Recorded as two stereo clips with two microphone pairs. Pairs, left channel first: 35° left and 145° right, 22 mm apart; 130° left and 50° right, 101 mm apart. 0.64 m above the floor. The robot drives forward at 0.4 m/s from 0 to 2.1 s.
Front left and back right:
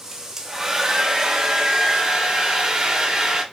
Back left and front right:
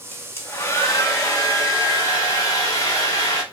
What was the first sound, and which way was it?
A hair dryer, 160° left.